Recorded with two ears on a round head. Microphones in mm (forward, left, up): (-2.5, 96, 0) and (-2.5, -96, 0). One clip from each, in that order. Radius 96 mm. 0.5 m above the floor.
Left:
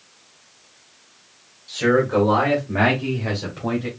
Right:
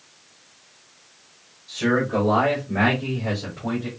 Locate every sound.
1.7 s a man speaking: 15° left (ahead or behind), 1.9 m; by 3.9 s 60° left (ahead or behind), 3 m